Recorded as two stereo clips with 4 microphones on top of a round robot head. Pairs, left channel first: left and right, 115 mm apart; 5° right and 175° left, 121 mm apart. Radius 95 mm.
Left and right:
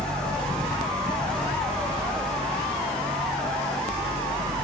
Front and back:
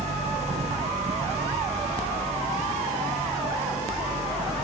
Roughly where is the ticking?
No ticking in this recording.